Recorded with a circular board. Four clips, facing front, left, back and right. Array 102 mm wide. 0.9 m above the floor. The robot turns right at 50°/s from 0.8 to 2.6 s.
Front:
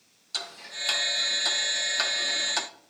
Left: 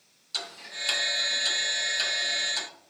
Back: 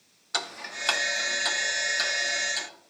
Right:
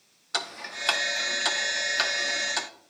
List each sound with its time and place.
0.3 s ticking: 130° right, 0.7 m; by 2.7 s 40° right, 0.7 m